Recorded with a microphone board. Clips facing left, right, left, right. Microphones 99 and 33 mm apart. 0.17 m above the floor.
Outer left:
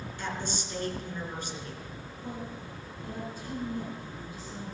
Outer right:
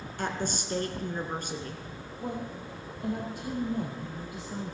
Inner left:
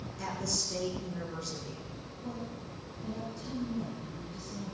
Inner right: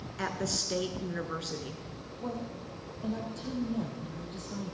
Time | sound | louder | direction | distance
0.2 | a woman speaking | outer right 4 dB, inner right 3 dB | 55° right (ahead or behind) | 2 m
2.2 | a woman speaking | outer right 4 dB, inner right 4 dB | 75° right (ahead or behind) | 5 m